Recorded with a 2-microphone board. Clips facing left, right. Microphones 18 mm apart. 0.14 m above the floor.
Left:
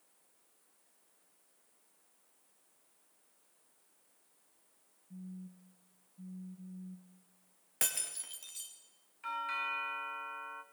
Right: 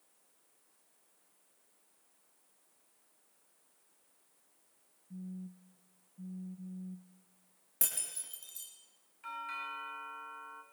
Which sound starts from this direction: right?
A phone buzzing, at 5.1 s.